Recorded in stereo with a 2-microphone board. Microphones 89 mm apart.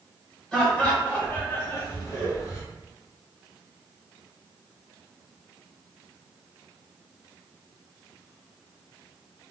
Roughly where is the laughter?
Centre.